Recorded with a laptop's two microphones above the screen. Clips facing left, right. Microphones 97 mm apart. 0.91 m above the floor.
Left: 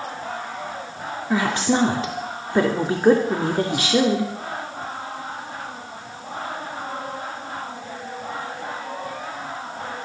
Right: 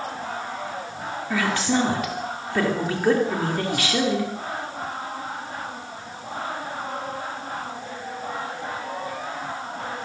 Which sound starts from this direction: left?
A woman speaking, at 1.3 s.